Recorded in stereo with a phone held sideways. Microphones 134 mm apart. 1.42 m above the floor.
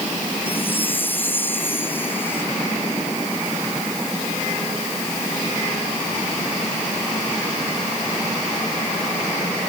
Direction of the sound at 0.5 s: 15° left (ahead or behind).